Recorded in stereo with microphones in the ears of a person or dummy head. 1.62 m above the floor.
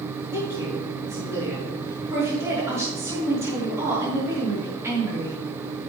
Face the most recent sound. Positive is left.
turn(degrees=-15)  # may be behind; listen again after turning